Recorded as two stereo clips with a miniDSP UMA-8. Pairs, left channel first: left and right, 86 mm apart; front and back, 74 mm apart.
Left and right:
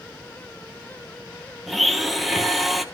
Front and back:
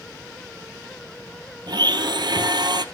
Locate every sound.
1.7 s a blender: straight behind, 1.0 m